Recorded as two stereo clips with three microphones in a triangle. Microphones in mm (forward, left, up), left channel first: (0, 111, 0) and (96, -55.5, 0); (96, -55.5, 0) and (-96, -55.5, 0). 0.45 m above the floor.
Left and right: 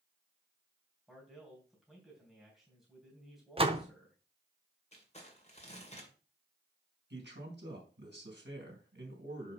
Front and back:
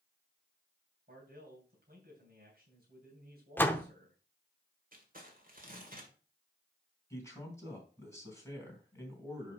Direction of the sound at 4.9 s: 160° left.